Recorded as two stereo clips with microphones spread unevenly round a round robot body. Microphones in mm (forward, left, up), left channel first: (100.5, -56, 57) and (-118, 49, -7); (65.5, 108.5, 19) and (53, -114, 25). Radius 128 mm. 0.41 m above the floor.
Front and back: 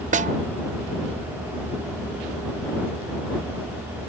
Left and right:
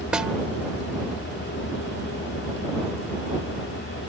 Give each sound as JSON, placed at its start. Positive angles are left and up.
{"t": 0.1, "sound": "a snare drum", "azimuth_deg": 180}